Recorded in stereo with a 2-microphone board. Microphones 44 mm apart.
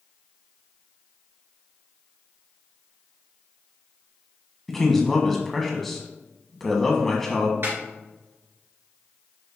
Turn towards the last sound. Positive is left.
turn(degrees=-60)  # may be behind; listen again after turning